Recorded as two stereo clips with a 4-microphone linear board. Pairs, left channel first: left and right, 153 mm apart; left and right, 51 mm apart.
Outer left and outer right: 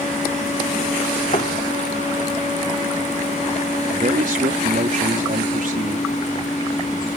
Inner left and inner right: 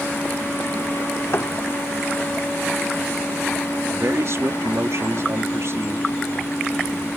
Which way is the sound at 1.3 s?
50° left (ahead or behind).